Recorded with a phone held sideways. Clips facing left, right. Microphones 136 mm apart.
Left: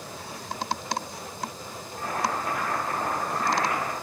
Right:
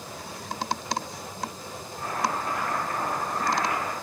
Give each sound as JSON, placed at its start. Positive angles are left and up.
{"t": 2.0, "sound": "boiling", "side_deg": 60, "distance_m": 2.0}